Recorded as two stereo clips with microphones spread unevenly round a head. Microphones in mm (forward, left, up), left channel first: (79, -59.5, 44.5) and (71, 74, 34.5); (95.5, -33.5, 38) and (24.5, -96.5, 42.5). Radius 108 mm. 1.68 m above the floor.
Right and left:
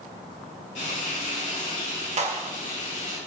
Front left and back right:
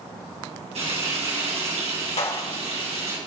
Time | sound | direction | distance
0.8 | frying | 145° right | 7 m
2.2 | a clap | 55° left | 2.5 m